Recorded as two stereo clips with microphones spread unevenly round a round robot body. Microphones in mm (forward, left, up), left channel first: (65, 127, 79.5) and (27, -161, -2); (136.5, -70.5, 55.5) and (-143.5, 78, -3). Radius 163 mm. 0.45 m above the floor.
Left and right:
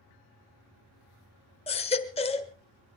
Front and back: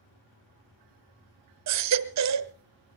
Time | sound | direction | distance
1.7 | a baby crying | 160° left | 1.1 m